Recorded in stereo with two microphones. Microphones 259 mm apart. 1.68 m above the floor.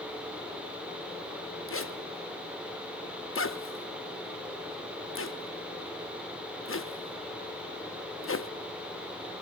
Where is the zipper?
50° left (ahead or behind), 0.6 m.